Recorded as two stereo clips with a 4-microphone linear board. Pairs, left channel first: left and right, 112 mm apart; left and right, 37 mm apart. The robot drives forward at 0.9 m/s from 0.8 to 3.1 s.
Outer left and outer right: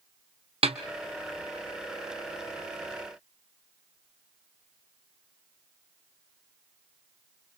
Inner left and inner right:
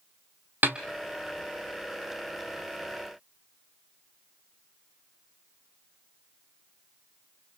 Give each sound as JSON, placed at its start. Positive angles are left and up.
{"t": 0.6, "sound": "a snare drum", "side_deg": -65, "distance_m": 1.0}